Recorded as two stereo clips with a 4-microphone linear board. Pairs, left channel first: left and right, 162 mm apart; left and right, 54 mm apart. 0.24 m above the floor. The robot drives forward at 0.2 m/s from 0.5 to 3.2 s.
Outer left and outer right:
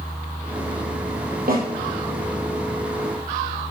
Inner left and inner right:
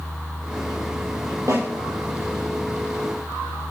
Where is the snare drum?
70° right (ahead or behind), 4 m; by 1.6 s 65° right (ahead or behind), 4 m.